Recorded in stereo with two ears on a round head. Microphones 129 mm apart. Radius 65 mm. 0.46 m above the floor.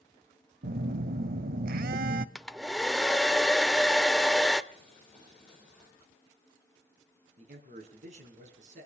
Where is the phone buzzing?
70° right (ahead or behind), 0.7 m.